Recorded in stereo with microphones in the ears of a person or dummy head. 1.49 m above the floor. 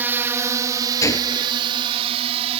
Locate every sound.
0.0 s a drone: 10° right (ahead or behind); by 2.6 s 35° right (ahead or behind)
1.0 s a gunshot: 20° left (ahead or behind)